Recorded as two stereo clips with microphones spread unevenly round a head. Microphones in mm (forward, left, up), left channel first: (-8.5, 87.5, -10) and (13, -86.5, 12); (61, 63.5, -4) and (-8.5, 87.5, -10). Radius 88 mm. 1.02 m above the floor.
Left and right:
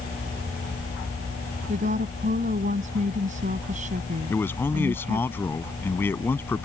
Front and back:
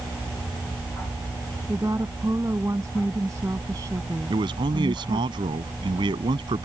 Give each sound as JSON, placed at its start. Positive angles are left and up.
{"t": 1.7, "sound": "a woman speaking", "azimuth_deg": -130}
{"t": 4.3, "sound": "a man speaking", "azimuth_deg": 175}